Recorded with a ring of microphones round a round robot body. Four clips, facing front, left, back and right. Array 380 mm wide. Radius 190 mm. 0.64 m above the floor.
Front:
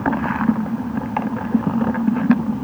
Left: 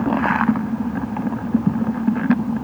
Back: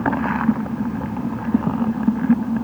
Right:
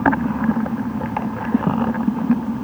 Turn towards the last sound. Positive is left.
No sound to turn to.